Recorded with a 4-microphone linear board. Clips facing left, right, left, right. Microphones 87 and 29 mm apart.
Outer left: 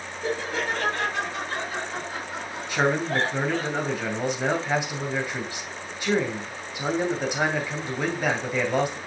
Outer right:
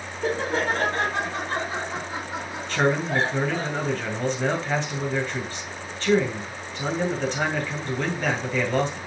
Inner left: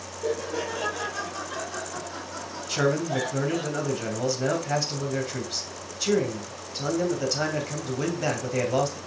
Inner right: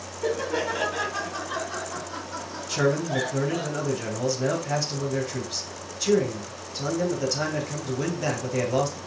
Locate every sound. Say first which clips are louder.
0.2 s laughter: outer right 4 dB, inner right 3 dB; 45° right (ahead or behind), 2 m; by 3.7 s 10° right (ahead or behind), 3.5 m
2.7 s a man speaking: outer right 1 dB, inner right 1 dB; 15° left (ahead or behind), 2.5 m